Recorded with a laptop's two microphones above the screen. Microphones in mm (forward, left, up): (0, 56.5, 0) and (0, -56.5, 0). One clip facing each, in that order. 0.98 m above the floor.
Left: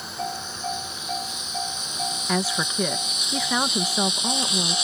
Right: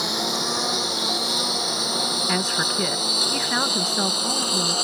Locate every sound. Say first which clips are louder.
0.0 s a lawn mower: right 5 dB; 80° right; by 4.8 s 50° right (ahead or behind)
2.3 s a woman speaking: left 2 dB; 5° left (ahead or behind)